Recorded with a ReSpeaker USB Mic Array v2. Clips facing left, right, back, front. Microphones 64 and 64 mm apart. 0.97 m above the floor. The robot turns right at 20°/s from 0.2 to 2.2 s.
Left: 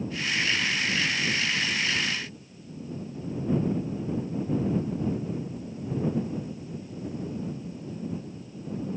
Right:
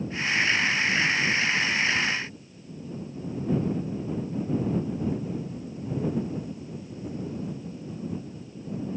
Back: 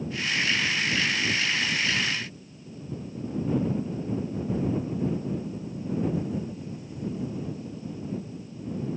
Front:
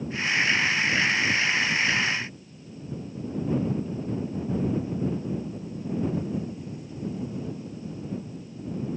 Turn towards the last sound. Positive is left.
No sound to turn to.